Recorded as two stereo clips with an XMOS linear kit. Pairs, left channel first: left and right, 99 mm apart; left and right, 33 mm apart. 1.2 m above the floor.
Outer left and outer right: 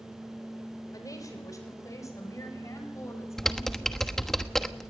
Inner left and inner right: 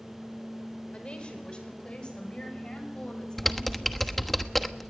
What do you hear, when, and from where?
0.9 s a woman speaking: 35° left (ahead or behind), 5 m; by 4.4 s 25° left (ahead or behind), 8 m
3.4 s typing on a keyboard: 5° left (ahead or behind), 1.2 m